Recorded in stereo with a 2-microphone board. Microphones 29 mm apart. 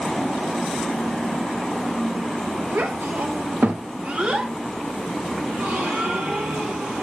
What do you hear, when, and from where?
2.7 s a child speaking: 80° right, 0.9 m; by 4.5 s 25° right (ahead or behind), 0.7 m
5.5 s a gasp: 70° right (ahead or behind), 1.9 m